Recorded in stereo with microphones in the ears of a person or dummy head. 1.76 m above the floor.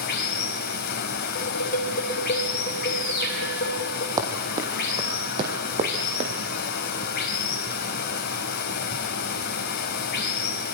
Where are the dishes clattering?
45° left (ahead or behind), 5 m.